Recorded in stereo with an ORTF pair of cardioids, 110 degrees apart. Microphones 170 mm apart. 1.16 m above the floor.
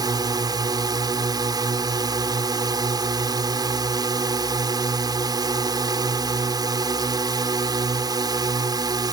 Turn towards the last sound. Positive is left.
turn(degrees=-25)